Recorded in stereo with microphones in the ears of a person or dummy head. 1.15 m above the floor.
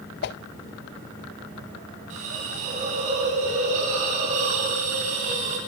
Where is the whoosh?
55° left (ahead or behind), 0.6 m.